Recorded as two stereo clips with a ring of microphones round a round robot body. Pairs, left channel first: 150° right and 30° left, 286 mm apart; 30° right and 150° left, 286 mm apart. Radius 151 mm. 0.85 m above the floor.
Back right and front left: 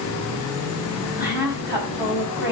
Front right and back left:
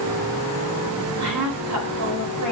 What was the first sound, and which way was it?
A woman speaking, 115° left.